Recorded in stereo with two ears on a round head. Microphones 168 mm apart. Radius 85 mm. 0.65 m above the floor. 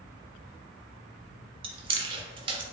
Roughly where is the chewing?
Right.